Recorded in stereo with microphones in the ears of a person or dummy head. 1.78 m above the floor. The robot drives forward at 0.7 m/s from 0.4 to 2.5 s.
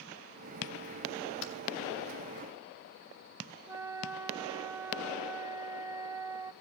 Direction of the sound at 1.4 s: 65° left (ahead or behind).